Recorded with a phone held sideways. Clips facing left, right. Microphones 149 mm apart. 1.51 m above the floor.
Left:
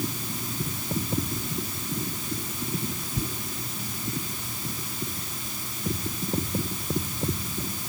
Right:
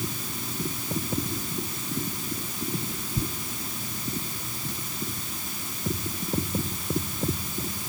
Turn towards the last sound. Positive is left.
No sound to turn to.